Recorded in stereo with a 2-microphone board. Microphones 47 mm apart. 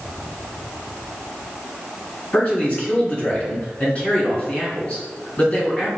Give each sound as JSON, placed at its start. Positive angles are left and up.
{"t": 2.3, "sound": "a man speaking", "side_deg": 30, "distance_m": 1.8}